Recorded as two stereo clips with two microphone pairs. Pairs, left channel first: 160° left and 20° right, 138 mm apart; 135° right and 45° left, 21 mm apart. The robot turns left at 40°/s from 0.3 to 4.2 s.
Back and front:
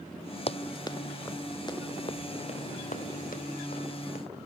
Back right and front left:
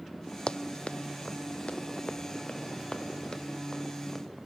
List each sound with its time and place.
0.5 s running footsteps: 160° right, 0.6 m; by 4.2 s 140° left, 3 m